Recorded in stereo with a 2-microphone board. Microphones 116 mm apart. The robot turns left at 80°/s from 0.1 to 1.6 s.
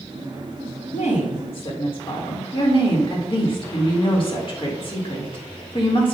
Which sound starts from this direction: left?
A woman speaking, at 0.9 s.